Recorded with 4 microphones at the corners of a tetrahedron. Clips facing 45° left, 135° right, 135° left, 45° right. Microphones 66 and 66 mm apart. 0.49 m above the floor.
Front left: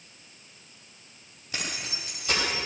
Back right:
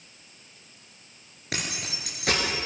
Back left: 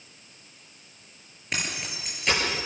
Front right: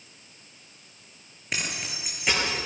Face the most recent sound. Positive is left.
turn(degrees=-125)